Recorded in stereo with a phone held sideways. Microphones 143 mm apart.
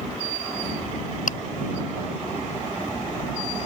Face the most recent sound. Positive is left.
turn(degrees=80)